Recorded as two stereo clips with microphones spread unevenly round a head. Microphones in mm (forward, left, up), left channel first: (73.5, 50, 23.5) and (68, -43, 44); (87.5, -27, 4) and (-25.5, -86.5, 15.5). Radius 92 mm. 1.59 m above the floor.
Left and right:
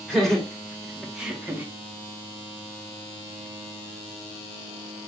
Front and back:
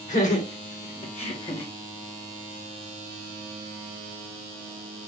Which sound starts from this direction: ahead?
Laughter, at 0.1 s.